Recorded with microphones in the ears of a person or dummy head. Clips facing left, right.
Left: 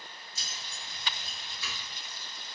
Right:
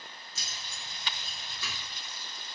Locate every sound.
0.3 s keys jangling: 60° right (ahead or behind), 0.6 m